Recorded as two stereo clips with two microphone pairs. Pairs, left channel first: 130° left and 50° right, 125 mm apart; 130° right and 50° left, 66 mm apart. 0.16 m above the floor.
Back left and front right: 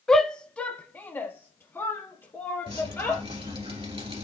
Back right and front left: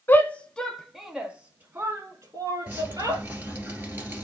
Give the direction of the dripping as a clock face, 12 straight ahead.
12 o'clock.